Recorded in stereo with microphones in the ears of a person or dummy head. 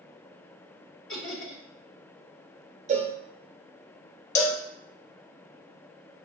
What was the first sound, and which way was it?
Laughter, 70° left (ahead or behind).